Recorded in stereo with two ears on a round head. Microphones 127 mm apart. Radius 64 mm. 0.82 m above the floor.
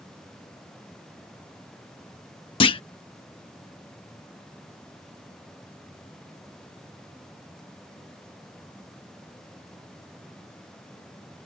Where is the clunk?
35° left (ahead or behind).